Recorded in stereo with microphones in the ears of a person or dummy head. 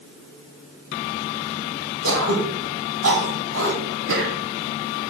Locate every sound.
2.0 s throat clearing: 75° right (ahead or behind), 2.5 m